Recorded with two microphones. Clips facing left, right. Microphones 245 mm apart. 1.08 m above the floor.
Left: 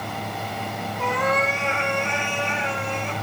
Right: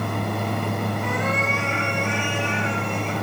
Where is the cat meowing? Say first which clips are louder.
Left 1 dB; 80° left, 5 m.